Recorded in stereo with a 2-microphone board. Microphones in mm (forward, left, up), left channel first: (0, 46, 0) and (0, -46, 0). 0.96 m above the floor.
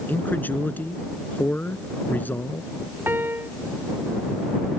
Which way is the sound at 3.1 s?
25° right (ahead or behind).